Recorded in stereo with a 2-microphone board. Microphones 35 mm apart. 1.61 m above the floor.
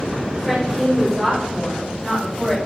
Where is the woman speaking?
10° right (ahead or behind), 4 m; by 2.6 s 5° left (ahead or behind), 5 m.